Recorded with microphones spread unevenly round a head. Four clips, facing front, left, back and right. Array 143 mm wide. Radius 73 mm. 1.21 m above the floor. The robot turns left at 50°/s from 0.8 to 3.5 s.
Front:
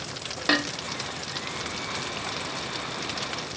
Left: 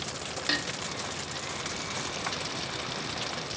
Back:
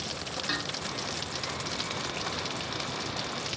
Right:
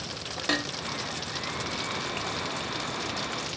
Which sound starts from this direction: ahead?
Dishes clattering, at 0.5 s.